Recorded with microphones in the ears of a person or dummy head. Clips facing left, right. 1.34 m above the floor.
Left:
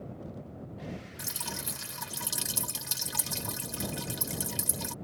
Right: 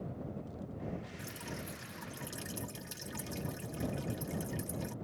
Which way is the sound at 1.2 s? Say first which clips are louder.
Left 1 dB; 85° left.